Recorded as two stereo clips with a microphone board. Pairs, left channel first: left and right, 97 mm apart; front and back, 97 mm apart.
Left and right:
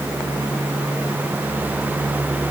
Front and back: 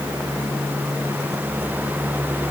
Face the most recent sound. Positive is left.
No sound to turn to.